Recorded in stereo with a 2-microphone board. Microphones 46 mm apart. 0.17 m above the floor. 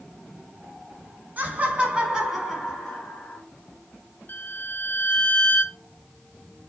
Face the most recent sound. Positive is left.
turn(degrees=50)  # may be behind; listen again after turning